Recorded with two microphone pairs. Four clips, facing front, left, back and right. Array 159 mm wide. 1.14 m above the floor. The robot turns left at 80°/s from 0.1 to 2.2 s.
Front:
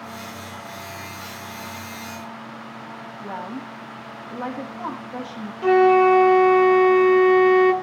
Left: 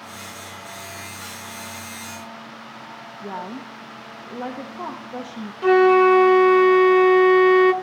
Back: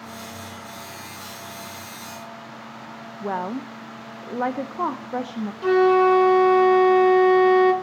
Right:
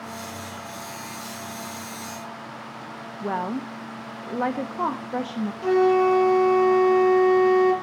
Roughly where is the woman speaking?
Behind.